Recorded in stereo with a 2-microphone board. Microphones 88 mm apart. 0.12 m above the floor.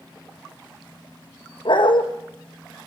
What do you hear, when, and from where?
1.6 s a dog barking: 65° left (ahead or behind), 2.5 m